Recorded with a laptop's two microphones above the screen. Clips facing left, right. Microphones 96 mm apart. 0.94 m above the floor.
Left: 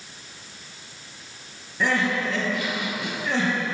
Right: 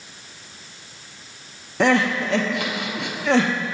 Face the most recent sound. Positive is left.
turn(degrees=-80)